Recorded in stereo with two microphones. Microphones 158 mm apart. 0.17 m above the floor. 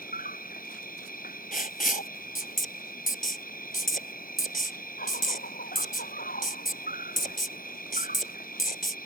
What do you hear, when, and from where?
0.0 s an insect: 65° left (ahead or behind)
1.5 s writing: 60° left (ahead or behind)